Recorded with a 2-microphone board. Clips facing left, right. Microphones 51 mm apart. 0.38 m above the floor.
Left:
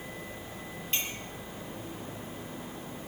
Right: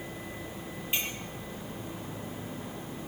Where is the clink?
15° right (ahead or behind), 5.5 m.